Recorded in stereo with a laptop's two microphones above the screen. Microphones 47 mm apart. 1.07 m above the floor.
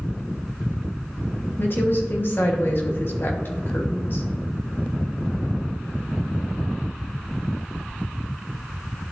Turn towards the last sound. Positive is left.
turn(degrees=50)  # may be behind; listen again after turning